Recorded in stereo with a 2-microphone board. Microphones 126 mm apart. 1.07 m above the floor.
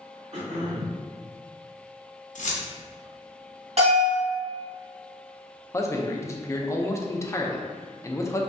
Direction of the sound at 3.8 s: 60° right (ahead or behind).